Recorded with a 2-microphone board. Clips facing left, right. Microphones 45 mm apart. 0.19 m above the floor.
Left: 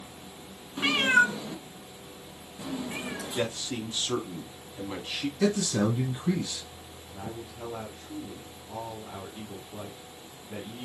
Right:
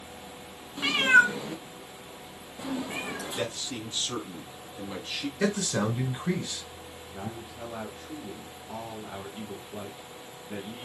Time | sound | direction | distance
0.8 | a cat meowing | 20° left (ahead or behind) | 0.5 m
3.4 | a man speaking | 15° left (ahead or behind) | 1.3 m
5.4 | a man speaking | 30° right (ahead or behind) | 1.5 m
7.1 | a man speaking | 25° right (ahead or behind) | 1.9 m